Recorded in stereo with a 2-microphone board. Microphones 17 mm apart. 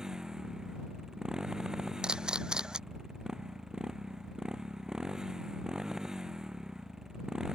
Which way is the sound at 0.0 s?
45° right (ahead or behind).